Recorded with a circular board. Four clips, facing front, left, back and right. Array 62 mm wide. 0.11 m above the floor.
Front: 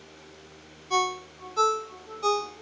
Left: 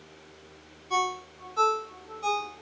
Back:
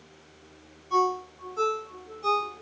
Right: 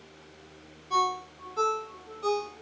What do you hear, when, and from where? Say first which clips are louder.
0.9 s a ringtone: right 1 dB, back 2 dB; 10° left, 0.5 m